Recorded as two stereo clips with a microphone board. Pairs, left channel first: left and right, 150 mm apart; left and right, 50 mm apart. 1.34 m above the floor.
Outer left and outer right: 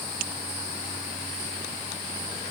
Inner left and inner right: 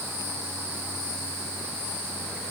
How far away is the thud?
No thud in this recording.